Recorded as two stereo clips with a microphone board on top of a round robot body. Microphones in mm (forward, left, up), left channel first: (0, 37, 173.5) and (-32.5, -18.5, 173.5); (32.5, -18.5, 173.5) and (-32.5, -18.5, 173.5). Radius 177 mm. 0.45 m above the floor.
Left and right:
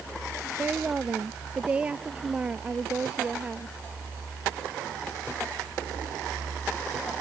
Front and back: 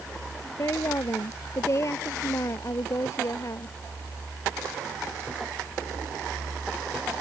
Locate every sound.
0.6 s a woman speaking: 45° right